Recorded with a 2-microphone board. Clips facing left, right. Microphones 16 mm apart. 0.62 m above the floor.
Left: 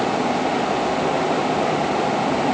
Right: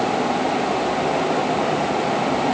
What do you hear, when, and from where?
Only background noise.